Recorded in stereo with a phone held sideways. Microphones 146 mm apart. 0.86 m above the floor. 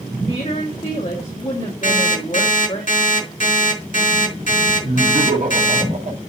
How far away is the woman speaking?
About 1.9 m.